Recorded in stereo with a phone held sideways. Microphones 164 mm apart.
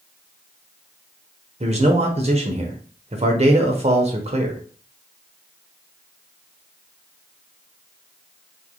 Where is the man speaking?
40° right (ahead or behind), 1.0 m.